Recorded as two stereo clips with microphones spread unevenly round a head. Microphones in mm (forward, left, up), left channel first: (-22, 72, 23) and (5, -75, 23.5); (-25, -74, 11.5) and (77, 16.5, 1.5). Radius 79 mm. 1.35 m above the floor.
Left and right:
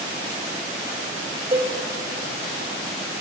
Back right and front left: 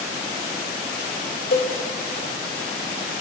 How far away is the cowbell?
About 2.0 m.